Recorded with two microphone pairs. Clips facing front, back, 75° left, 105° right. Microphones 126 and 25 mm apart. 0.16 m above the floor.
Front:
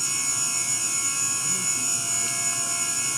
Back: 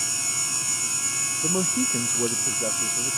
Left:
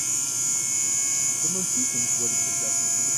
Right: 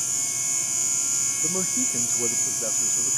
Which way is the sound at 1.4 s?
170° right.